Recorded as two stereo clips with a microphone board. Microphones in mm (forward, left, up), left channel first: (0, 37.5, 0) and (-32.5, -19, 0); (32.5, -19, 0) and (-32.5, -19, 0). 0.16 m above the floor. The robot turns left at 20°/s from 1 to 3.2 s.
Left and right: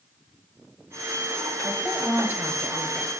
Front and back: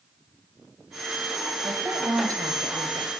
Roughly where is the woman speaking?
Behind right.